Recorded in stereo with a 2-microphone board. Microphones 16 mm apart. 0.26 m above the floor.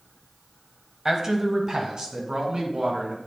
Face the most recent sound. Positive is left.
turn(degrees=-70)  # may be behind; listen again after turning